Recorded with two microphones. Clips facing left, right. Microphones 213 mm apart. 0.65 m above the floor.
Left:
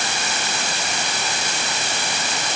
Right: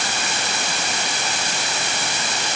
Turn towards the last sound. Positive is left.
No sound to turn to.